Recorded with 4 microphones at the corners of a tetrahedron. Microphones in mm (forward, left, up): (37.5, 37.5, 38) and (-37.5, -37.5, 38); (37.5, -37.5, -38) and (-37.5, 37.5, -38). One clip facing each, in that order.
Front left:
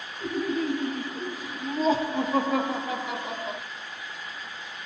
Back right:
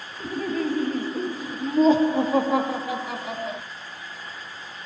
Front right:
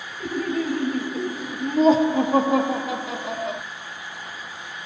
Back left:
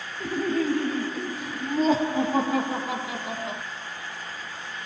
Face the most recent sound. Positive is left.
turn(degrees=-40)